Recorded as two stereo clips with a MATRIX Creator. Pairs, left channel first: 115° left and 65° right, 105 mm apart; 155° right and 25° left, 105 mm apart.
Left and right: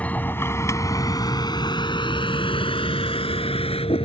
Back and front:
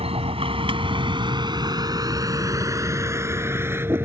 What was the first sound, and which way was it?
A vehicle, 35° left.